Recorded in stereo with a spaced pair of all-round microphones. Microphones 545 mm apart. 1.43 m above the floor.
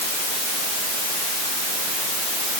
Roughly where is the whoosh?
No whoosh in this recording.